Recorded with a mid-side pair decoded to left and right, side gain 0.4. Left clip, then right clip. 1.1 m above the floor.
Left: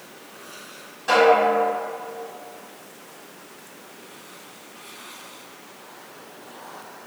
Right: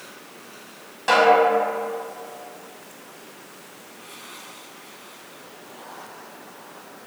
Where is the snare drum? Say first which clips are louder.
Right 1 dB; 60° right, 1.4 m.